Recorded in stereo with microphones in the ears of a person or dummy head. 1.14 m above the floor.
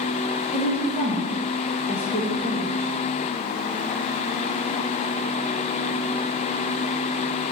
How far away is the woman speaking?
About 1.4 m.